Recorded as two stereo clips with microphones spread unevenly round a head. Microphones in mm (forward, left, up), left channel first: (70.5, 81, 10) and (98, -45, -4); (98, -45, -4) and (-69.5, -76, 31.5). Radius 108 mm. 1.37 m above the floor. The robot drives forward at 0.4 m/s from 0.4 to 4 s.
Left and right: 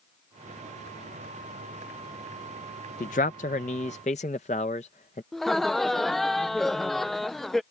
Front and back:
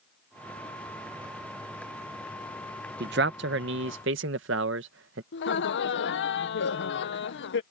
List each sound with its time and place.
3.0 s a man speaking: 150° left; by 5.2 s 160° left
5.3 s laughter: 15° left